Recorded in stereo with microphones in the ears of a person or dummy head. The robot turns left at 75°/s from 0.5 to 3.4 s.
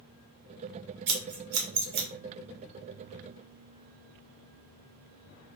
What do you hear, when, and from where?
1.1 s scissors: 60° right (ahead or behind), 0.7 m; by 2.1 s 45° right (ahead or behind), 0.7 m